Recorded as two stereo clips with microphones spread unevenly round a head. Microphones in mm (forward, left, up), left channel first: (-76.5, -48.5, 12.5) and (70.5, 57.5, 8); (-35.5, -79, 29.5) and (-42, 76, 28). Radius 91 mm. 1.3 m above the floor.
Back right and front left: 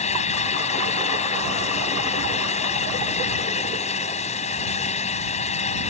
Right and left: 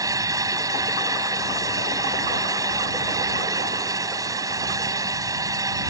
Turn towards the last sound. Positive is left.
turn(degrees=160)